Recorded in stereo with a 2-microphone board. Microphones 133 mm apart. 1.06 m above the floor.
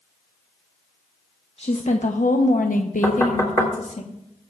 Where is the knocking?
25° left (ahead or behind), 3 m.